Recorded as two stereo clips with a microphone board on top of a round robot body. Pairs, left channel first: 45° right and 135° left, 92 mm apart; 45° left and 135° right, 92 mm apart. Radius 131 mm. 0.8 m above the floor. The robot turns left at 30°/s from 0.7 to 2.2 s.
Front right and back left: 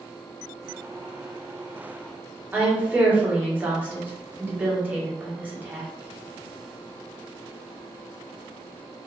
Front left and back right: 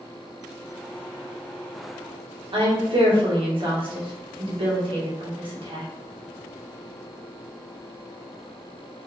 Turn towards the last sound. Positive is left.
turn(degrees=-150)